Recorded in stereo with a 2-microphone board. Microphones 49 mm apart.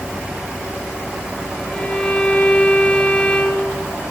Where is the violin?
15° left (ahead or behind), 8.5 m.